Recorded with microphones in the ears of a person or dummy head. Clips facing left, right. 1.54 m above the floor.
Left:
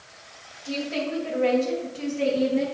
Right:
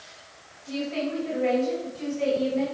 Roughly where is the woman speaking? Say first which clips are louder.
Even; left.